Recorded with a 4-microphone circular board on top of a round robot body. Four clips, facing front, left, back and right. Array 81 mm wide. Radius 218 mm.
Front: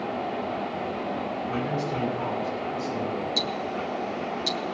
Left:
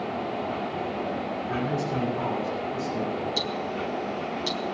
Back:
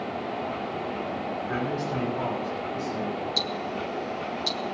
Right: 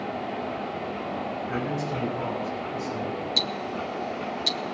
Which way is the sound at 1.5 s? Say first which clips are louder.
Left 3 dB, even; 155° right.